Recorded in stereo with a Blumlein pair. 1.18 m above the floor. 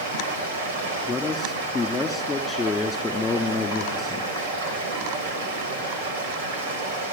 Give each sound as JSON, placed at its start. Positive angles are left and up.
{"t": 0.0, "sound": "running water", "azimuth_deg": -55, "distance_m": 6.0}
{"t": 1.1, "sound": "a man speaking", "azimuth_deg": 10, "distance_m": 3.0}